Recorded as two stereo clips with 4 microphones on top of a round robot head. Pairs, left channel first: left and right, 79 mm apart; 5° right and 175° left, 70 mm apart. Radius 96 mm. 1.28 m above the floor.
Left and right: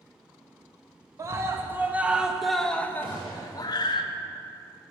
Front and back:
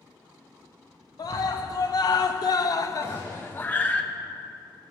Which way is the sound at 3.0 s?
85° right.